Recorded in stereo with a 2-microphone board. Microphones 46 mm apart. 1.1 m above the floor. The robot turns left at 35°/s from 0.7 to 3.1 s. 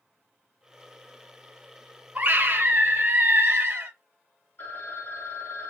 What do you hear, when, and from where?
2.1 s a scream: 30° right, 1.2 m; by 3.9 s 65° right, 1.2 m
4.6 s a phone ringing: 55° left (ahead or behind), 2 m